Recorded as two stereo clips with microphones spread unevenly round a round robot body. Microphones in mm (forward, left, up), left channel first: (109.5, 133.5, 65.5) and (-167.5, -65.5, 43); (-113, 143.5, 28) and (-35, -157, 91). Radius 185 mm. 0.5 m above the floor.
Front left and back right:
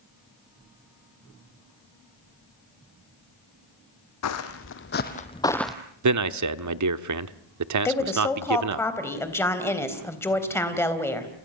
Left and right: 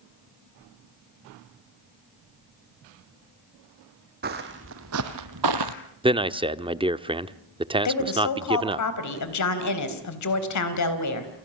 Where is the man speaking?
155° right, 1.1 m.